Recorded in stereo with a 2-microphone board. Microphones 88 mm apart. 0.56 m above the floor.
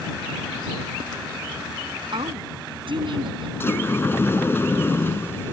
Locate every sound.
2.1 s a woman speaking: 70° right (ahead or behind)
3.6 s a sliding door: 25° left (ahead or behind)